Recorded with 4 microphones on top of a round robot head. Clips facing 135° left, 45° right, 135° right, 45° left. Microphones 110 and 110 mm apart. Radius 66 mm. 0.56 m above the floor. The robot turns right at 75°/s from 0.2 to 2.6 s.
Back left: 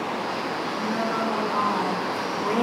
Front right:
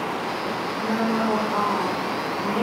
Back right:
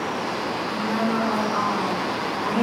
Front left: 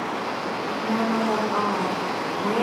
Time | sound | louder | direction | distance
0.7 | a woman speaking | front right 4 dB, front left 1 dB | 50° right | 2.0 m